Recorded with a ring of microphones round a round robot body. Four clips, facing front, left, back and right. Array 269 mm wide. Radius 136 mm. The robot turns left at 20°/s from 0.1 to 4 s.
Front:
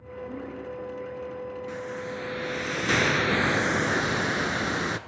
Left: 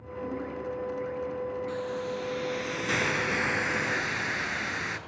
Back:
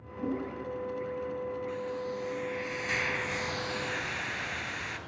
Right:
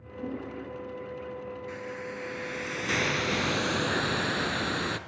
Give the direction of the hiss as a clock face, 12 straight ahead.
11 o'clock.